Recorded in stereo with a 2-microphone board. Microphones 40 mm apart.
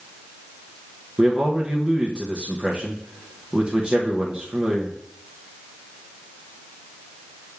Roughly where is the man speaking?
Right.